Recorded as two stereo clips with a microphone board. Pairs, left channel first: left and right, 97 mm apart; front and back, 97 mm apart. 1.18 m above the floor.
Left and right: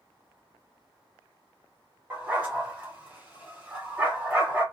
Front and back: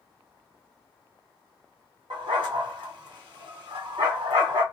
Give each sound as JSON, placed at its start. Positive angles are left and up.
{"t": 2.1, "sound": "a dog barking", "azimuth_deg": -160, "distance_m": 1.3}